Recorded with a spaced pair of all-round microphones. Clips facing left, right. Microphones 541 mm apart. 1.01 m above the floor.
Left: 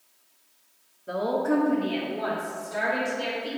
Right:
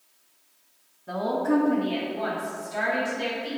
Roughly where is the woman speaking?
Centre.